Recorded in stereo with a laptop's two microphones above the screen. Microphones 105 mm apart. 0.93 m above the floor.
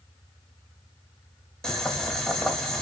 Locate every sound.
1.6 s boiling: 5° left (ahead or behind), 1.5 m